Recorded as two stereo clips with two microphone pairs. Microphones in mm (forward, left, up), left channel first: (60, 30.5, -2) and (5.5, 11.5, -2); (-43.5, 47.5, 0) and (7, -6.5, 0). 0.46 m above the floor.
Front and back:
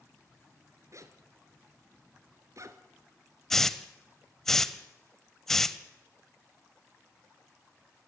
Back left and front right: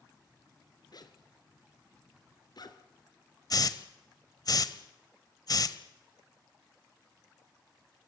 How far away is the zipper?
About 1.8 m.